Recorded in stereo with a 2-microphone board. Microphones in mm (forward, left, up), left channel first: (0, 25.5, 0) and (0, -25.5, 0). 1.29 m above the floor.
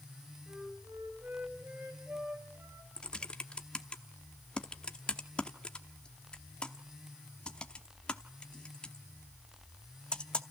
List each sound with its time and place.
0.5 s a flute: 45° right (ahead or behind), 4.5 m
3.0 s typing on a keyboard: 20° left (ahead or behind), 0.9 m